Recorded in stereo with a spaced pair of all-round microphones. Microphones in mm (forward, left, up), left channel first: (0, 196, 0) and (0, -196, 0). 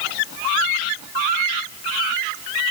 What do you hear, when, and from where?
Only background noise.